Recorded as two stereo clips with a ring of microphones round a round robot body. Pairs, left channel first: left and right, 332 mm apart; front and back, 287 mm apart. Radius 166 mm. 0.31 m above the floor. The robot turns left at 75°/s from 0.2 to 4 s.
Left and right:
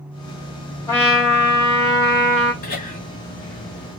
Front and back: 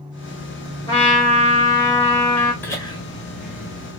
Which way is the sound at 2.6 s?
75° left.